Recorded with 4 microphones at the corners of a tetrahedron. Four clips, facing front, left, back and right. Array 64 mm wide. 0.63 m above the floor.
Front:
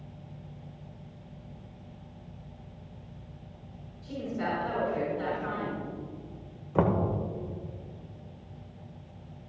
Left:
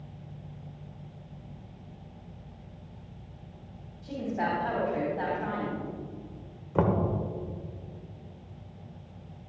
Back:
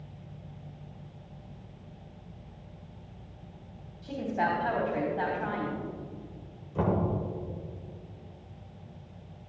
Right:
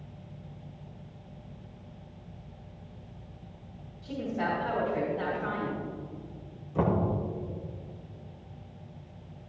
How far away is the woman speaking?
About 3.5 m.